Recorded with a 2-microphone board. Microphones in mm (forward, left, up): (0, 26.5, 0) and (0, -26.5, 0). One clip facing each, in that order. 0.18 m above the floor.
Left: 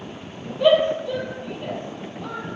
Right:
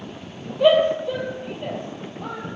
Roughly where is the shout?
Centre.